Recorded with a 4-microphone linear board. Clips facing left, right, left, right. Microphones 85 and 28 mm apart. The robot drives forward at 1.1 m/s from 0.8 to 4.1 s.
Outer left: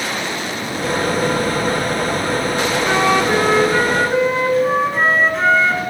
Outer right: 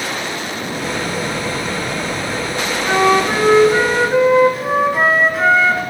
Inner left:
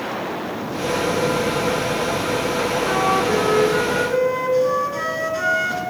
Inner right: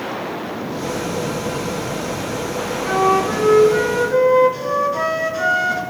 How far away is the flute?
About 2 m.